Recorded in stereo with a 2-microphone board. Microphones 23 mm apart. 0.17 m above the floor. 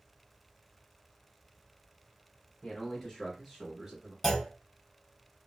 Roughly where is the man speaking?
Left.